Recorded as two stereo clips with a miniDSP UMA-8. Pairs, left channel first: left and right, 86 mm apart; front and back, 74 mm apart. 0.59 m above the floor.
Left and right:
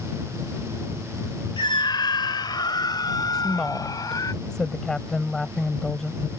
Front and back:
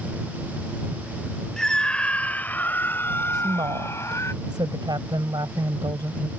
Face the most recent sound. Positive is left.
turn(degrees=175)